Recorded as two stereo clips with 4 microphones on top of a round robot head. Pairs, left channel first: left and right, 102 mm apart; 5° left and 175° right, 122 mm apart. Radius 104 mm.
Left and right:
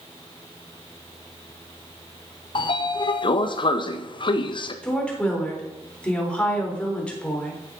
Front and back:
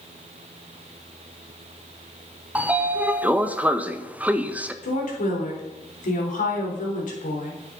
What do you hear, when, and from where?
2.5 s a sliding door: 110° left, 0.9 m
4.8 s a woman speaking: 10° left, 3.5 m